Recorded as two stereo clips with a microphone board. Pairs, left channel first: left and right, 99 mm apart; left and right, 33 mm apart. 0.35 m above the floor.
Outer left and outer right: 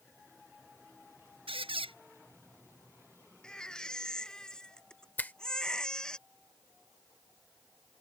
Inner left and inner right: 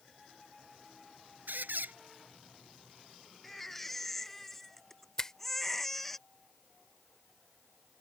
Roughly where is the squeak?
Right.